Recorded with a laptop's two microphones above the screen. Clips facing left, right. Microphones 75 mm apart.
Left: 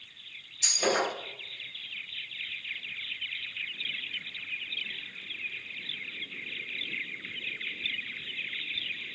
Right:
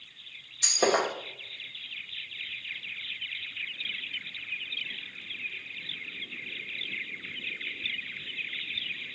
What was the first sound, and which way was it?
Breaking glass, 70° right (ahead or behind).